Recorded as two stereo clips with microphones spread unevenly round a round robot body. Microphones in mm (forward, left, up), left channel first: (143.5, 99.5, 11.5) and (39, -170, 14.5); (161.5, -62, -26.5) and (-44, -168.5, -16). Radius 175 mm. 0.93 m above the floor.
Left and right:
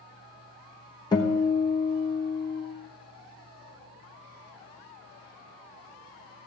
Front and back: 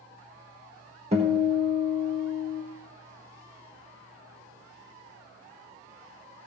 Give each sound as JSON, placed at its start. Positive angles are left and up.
{"t": 1.1, "sound": "a guitar", "azimuth_deg": 140, "distance_m": 0.9}